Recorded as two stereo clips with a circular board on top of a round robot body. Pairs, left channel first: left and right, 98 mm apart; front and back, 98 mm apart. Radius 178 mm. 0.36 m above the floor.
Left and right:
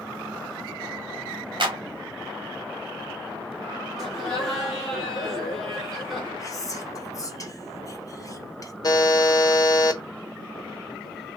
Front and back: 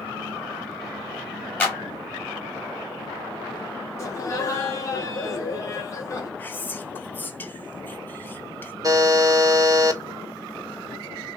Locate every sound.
1.6 s a clap: 70° right, 2 m
4.0 s laughter: straight ahead, 1.6 m
6.4 s whispering: 60° left, 1.1 m
8.8 s a buzzer: 135° left, 1.0 m